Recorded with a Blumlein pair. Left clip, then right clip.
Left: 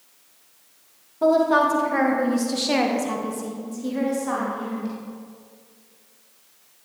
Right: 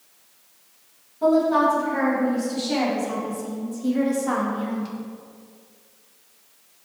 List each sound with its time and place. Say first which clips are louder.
1.2 s a woman speaking: left 1 dB; 70° left, 2.0 m; by 4.9 s 20° right, 1.9 m